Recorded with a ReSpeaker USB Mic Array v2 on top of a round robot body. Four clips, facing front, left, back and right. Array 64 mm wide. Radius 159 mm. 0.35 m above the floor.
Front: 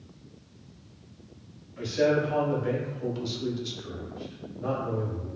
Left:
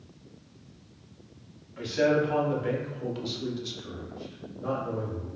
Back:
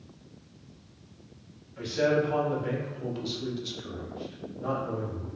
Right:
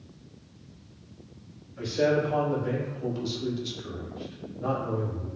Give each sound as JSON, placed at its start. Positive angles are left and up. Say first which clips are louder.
{"t": 1.8, "sound": "a man speaking", "louder": "even, front 1 dB", "azimuth_deg": 95, "distance_m": 1.8}